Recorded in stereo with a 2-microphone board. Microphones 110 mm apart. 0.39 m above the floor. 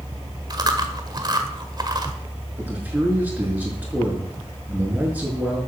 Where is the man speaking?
15° right (ahead or behind), 5 m.